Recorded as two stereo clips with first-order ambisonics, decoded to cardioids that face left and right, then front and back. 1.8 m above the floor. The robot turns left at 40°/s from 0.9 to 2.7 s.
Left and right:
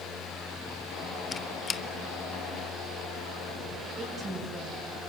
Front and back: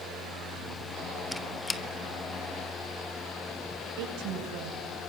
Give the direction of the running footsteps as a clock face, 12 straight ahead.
I don't hear running footsteps.